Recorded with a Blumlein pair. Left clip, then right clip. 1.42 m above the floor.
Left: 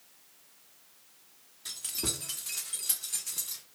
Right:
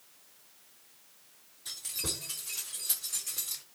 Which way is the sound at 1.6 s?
50° left.